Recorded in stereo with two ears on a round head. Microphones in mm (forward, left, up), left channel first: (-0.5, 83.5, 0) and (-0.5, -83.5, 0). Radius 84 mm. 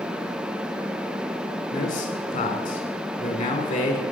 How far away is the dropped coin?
I don't hear a dropped coin.